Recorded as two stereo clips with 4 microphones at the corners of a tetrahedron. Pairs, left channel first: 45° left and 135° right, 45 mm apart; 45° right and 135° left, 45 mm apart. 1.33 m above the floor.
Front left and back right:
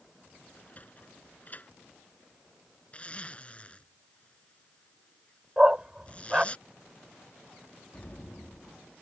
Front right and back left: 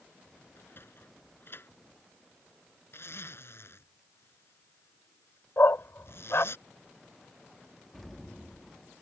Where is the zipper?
15° right.